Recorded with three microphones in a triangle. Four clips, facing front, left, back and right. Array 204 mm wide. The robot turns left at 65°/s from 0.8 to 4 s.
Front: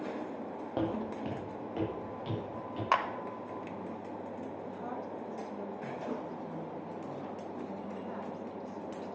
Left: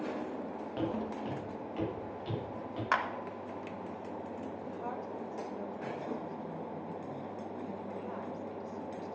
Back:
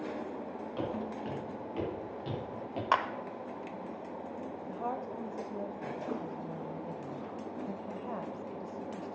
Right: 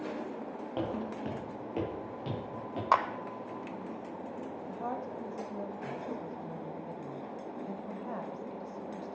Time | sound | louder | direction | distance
0.8 | footsteps | even, front 3 dB | 20° right | 5 m
2.9 | a clap | right 5 dB, even | 95° right | 1.0 m
4.7 | a woman speaking | right 4 dB, back 3 dB | 145° right | 1.3 m